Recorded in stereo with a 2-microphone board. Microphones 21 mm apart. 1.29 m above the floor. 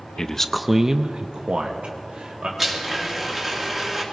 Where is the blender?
15° right (ahead or behind), 2 m.